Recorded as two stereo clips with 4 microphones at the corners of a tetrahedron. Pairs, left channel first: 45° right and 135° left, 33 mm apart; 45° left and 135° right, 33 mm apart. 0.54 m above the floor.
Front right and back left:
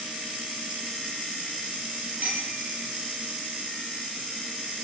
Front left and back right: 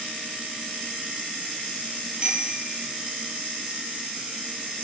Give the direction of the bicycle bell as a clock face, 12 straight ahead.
7 o'clock.